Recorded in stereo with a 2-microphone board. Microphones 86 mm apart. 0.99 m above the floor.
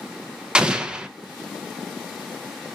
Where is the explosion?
10° right (ahead or behind), 0.5 m.